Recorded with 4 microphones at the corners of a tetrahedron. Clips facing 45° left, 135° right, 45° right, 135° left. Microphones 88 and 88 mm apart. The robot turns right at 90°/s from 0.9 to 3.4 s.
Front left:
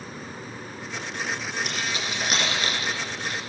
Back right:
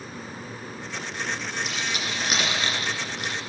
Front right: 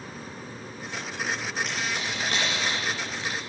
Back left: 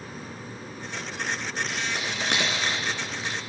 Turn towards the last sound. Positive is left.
turn(degrees=-120)